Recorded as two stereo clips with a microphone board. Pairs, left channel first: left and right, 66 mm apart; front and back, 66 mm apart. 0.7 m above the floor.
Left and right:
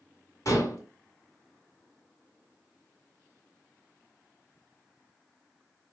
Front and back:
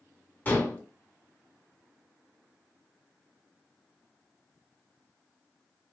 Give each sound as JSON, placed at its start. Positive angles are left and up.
{"t": 0.5, "sound": "dishes clattering", "azimuth_deg": 60, "distance_m": 1.6}